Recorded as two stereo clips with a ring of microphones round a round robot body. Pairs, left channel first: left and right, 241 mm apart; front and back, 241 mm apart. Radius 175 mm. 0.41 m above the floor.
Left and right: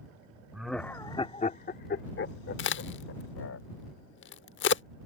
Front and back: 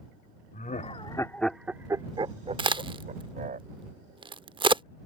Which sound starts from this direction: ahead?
Laughter, at 0.5 s.